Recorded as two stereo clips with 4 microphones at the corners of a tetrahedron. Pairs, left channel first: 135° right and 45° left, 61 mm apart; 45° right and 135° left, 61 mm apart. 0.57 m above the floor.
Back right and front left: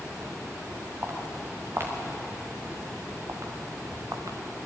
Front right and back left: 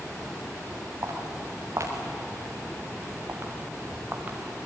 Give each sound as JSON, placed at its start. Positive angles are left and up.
{"t": 1.0, "sound": "footsteps", "azimuth_deg": 95, "distance_m": 6.0}